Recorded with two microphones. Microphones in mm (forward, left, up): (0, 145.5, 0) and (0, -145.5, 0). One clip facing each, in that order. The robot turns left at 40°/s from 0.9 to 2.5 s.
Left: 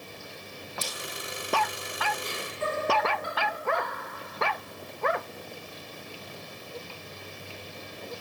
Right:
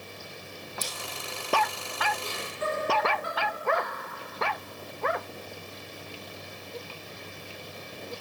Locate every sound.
0.8 s scissors: 75° left (ahead or behind), 0.9 m
2.2 s laughter: 10° right (ahead or behind), 1.9 m; by 3.9 s centre (ahead or behind), 1.9 m